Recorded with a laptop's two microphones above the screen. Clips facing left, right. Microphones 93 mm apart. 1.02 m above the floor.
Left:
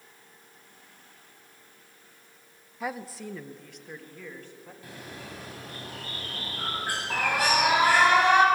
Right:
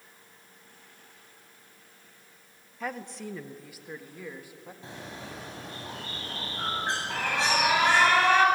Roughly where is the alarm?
Centre.